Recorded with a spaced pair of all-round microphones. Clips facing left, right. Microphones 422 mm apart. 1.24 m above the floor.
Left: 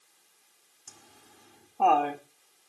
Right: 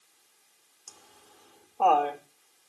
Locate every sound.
0.9 s laughter: 40° left (ahead or behind), 2.5 m